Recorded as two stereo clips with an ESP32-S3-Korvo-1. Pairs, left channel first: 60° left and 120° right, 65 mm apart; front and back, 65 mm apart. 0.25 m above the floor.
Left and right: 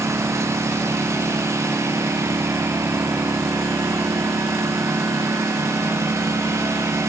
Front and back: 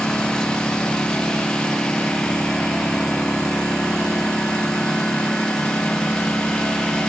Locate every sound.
0.0 s a lawn mower: 75° right